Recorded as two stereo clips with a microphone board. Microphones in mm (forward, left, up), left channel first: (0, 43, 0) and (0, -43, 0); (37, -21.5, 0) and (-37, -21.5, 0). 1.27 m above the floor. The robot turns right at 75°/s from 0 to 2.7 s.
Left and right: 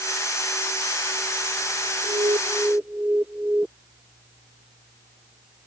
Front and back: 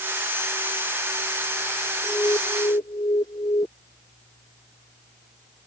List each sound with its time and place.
2.0 s an alarm: 70° right; by 3.7 s 20° right